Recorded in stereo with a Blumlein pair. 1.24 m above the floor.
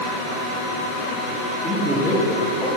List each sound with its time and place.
1.6 s a man speaking: 5° left, 3.5 m